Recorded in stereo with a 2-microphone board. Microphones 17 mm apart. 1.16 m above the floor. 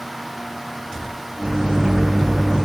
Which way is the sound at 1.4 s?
75° right (ahead or behind).